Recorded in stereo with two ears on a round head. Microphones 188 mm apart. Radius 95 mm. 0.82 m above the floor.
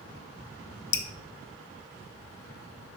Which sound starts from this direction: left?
Dripping, at 0.9 s.